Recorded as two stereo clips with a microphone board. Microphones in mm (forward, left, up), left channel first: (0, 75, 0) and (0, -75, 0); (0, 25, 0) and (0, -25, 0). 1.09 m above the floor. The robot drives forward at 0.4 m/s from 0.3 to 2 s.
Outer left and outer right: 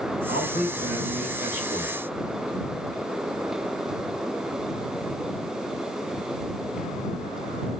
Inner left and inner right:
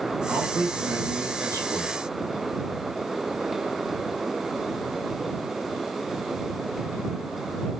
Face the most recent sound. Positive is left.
turn(degrees=-60)  # may be behind; listen again after turning